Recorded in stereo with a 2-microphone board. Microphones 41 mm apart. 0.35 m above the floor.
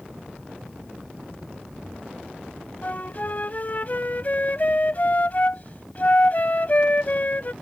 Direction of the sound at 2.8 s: 45° left (ahead or behind).